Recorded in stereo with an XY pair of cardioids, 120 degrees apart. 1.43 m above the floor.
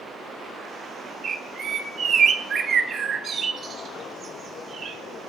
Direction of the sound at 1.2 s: 45° right.